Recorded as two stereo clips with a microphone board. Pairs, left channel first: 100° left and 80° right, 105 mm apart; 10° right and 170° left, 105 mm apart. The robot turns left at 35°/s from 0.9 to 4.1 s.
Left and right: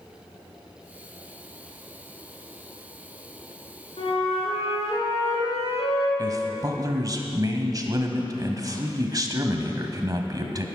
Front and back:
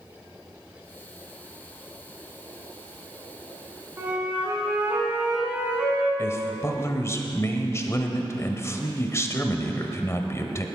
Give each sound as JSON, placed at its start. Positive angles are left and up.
{"t": 4.0, "sound": "a flute", "azimuth_deg": 105, "distance_m": 2.5}
{"t": 6.2, "sound": "a man speaking", "azimuth_deg": -60, "distance_m": 1.2}